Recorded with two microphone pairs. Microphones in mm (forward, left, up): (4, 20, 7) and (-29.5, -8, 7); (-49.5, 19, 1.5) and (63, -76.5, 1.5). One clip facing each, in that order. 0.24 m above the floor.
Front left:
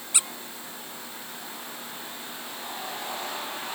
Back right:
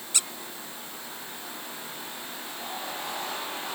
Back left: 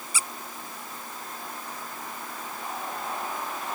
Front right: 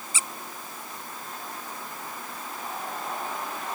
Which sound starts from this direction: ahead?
A squeak, at 0.1 s.